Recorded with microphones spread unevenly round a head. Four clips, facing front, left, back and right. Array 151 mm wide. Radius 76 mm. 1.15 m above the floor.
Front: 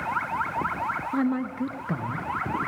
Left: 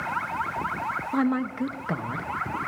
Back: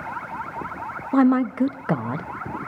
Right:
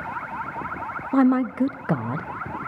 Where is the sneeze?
I don't hear a sneeze.